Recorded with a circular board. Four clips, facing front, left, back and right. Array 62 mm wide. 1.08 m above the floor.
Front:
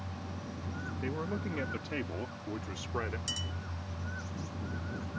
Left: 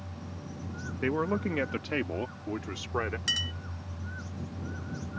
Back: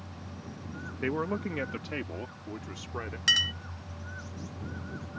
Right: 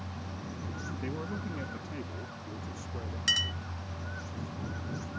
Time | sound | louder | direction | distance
1.0 | a man speaking | left 11 dB, back 7 dB | 135° left | ?
3.3 | a clink | right 2 dB, back 13 dB | 175° right | ?